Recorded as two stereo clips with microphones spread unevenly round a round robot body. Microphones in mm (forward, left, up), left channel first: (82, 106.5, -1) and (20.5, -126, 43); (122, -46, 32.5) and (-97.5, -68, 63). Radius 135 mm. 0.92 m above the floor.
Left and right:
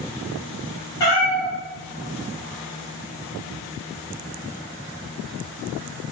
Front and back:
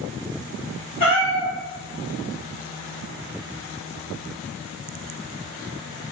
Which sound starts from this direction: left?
A cat meowing, at 1.0 s.